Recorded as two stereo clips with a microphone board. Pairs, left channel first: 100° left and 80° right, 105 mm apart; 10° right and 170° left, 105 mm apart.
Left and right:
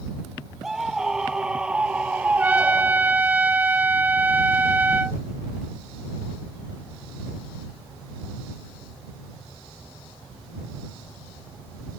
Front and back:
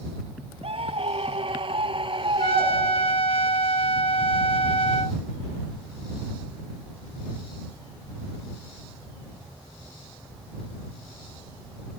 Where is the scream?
165° right; by 3.2 s 145° right.